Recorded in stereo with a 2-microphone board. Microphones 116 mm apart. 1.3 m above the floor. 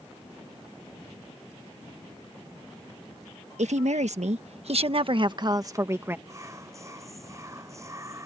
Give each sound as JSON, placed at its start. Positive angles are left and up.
{"t": 3.6, "sound": "a woman speaking", "side_deg": -80}
{"t": 6.3, "sound": "whispering", "side_deg": -25}